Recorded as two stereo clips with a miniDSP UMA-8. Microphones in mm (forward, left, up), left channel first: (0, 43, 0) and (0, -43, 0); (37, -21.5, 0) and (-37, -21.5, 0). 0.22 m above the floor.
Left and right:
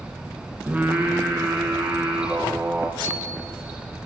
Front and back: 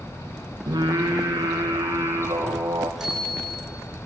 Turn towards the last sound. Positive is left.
turn(degrees=100)